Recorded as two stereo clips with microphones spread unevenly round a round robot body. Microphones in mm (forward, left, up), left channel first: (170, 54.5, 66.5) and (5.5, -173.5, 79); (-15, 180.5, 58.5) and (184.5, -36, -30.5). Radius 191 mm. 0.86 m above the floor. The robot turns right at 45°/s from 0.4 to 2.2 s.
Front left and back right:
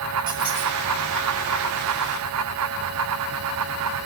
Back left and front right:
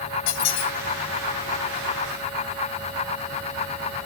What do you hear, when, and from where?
0.3 s a squeak: 155° left, 0.8 m; by 0.7 s 170° left, 0.8 m